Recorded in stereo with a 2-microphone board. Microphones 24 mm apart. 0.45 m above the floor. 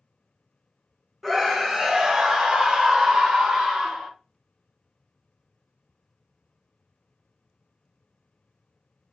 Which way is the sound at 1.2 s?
5° right (ahead or behind).